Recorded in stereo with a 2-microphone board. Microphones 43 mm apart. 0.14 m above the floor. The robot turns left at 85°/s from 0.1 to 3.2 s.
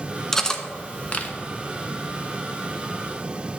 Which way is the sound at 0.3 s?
10° left (ahead or behind).